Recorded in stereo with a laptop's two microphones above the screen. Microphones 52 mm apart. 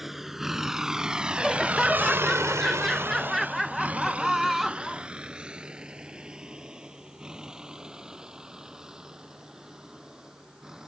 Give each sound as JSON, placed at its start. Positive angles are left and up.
{"t": 0.0, "sound": "a vehicle", "side_deg": -5}
{"t": 1.4, "sound": "laughter", "side_deg": -5}